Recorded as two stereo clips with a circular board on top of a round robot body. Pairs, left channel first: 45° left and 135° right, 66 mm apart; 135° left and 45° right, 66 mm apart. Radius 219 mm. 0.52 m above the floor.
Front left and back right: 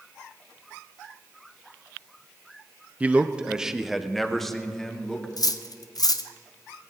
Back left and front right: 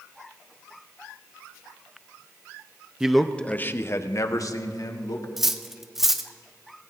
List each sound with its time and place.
3.0 s a man speaking: 115° right, 0.9 m; by 5.3 s 125° left, 2.0 m
5.4 s cutlery clinking: 40° left, 0.9 m